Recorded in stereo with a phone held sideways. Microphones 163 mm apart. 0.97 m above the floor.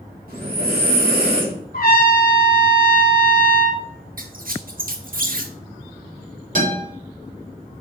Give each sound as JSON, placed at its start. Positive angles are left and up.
{"t": 0.3, "sound": "breathing", "side_deg": -65, "distance_m": 3.0}
{"t": 1.7, "sound": "a trumpet", "side_deg": 65, "distance_m": 1.3}
{"t": 4.2, "sound": "a squeak", "side_deg": -60, "distance_m": 0.9}
{"t": 6.5, "sound": "a guitar", "side_deg": -55, "distance_m": 4.0}